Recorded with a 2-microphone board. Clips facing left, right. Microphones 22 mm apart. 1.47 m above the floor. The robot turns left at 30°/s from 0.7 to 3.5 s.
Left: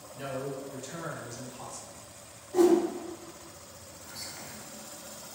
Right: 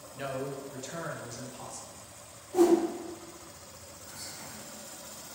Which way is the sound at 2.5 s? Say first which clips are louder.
Left 1 dB; 15° left (ahead or behind).